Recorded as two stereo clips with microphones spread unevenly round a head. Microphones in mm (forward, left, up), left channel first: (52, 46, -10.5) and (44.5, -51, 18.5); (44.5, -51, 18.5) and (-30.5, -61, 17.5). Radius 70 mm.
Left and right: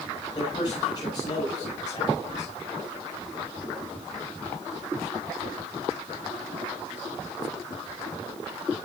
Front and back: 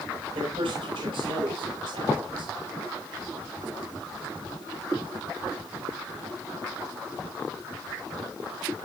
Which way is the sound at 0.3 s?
150° left.